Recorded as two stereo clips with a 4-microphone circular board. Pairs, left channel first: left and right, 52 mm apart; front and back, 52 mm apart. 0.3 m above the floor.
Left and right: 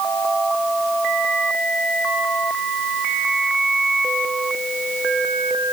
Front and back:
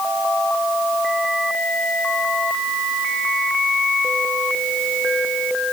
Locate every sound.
Only background noise.